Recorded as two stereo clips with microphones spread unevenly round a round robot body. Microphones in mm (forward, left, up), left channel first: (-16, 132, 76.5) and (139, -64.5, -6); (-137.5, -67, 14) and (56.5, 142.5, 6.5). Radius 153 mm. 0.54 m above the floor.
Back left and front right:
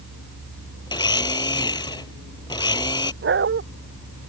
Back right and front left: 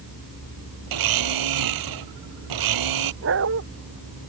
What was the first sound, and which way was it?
A blender, 55° left.